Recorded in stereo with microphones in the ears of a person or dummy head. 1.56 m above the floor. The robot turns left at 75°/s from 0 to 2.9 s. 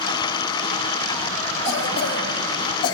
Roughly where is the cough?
Behind left.